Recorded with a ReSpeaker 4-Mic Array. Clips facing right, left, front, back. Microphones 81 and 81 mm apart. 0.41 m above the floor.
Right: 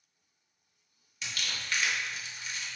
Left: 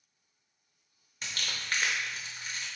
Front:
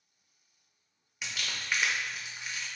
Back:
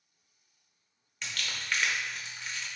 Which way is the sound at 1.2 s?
75° left.